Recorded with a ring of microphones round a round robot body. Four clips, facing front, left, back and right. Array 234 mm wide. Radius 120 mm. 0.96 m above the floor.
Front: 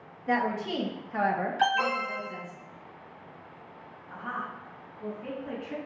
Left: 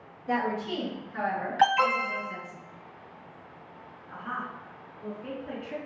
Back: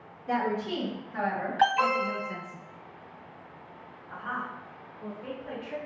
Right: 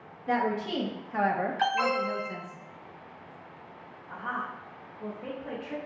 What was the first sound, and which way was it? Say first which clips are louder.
A woman speaking: right 1 dB, front 1 dB; 35° right.